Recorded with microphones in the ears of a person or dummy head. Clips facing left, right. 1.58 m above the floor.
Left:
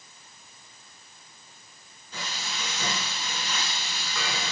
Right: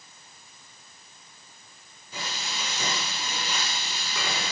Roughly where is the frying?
Centre.